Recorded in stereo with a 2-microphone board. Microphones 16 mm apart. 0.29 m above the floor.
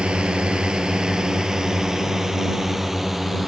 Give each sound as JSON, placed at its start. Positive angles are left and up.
{"t": 0.0, "sound": "a drone", "side_deg": -65}